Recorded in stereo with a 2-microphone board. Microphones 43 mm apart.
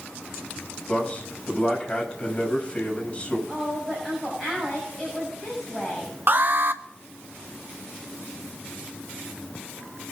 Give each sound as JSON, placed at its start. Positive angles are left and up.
{"t": 0.9, "sound": "a man speaking", "side_deg": 25, "distance_m": 6.0}
{"t": 3.5, "sound": "a woman speaking", "side_deg": 0, "distance_m": 7.5}
{"t": 6.3, "sound": "an alarm", "side_deg": -50, "distance_m": 1.0}